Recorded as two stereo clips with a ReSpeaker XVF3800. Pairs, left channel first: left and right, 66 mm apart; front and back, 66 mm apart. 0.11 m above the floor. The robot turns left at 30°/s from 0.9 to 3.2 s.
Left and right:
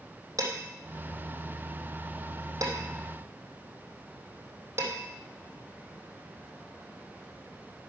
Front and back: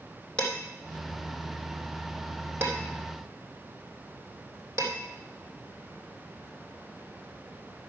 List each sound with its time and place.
0.4 s dishes clattering: 75° right, 3 m; by 5.0 s 140° right, 3 m